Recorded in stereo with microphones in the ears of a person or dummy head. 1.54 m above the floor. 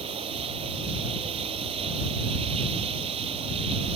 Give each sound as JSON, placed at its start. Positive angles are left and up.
{"t": 0.0, "sound": "running water", "side_deg": -30}